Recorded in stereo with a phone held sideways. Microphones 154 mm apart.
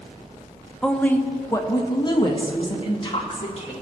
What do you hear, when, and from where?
0.8 s a woman speaking: 5° left (ahead or behind), 0.7 m; by 3.7 s 40° left (ahead or behind), 2 m